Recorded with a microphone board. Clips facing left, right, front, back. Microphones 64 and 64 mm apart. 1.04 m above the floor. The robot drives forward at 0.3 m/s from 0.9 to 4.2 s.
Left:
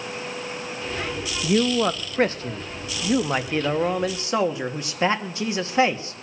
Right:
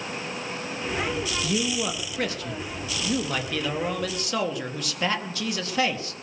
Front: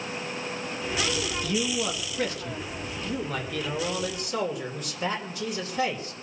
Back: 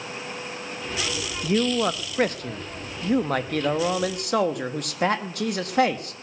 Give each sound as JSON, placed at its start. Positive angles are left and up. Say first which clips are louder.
{"t": 1.4, "sound": "a man speaking", "louder": "left 10 dB, back 9 dB", "azimuth_deg": 130, "distance_m": 1.1}